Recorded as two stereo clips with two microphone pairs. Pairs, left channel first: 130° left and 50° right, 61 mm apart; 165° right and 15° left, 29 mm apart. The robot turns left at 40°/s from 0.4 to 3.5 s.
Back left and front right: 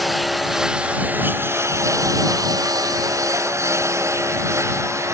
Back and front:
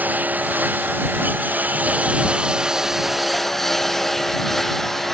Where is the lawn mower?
40° left; by 5.1 s 85° right.